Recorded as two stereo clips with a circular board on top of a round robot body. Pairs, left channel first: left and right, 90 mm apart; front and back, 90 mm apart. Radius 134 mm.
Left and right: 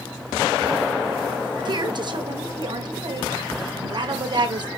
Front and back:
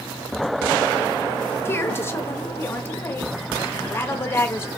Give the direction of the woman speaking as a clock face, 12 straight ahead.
2 o'clock.